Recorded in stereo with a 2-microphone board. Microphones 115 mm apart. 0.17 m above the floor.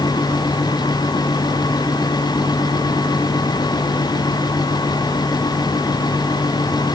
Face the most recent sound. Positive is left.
No sound to turn to.